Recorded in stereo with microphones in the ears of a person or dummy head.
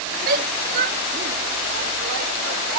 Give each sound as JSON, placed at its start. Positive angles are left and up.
{"t": 0.3, "sound": "a shout", "side_deg": -50}